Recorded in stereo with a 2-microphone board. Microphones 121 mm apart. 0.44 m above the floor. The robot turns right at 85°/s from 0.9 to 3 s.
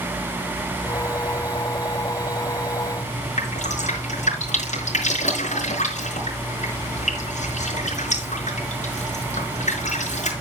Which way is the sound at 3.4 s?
80° left.